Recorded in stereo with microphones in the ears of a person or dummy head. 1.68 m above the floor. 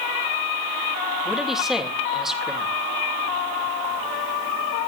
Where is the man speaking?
5° right (ahead or behind), 3 m.